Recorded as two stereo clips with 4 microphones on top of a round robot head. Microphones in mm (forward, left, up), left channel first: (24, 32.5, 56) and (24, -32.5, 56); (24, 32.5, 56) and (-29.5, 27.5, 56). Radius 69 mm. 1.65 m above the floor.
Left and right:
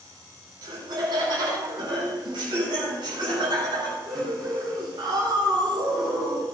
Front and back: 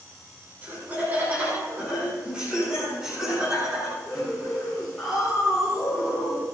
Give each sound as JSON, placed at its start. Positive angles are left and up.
{"t": 0.6, "sound": "laughter", "azimuth_deg": -115, "distance_m": 6.5}